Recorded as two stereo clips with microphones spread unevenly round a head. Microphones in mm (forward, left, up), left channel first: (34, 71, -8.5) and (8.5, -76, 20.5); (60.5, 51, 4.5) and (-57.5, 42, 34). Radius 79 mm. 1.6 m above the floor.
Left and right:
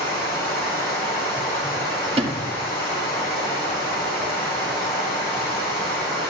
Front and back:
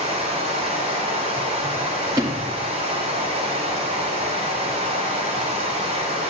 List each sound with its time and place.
0.0 s running water: 160° left, 4.5 m
2.2 s a sliding door: 130° right, 1.5 m